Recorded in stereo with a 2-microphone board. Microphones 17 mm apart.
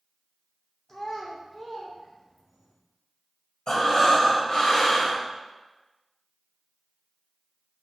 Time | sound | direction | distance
0.9 | a child speaking | 30° left (ahead or behind) | 0.6 m
3.7 | breathing | 55° left (ahead or behind) | 1.6 m